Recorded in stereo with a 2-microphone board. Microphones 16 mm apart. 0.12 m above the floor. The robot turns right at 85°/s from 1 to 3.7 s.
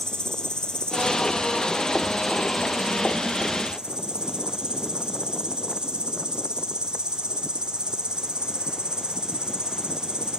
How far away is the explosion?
No explosion in this recording.